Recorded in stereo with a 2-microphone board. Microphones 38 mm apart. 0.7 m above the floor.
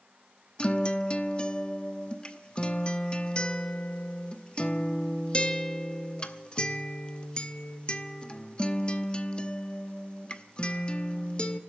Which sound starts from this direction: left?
A guitar, at 0.6 s.